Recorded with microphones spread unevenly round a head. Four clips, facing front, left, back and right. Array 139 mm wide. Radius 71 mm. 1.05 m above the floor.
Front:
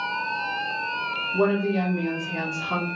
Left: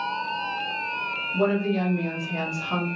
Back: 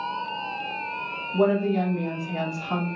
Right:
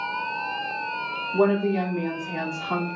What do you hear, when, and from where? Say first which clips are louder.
1.3 s a woman speaking: right 2 dB, back 1 dB; 105° right, 2 m